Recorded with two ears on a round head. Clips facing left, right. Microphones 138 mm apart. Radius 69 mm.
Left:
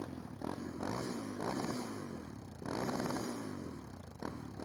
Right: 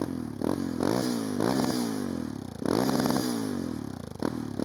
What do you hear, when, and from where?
0.0 s a motorcycle: 75° right (ahead or behind)